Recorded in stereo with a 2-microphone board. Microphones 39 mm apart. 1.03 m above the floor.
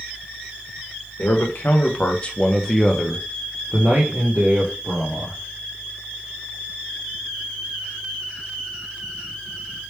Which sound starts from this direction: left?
A man speaking, at 1.2 s.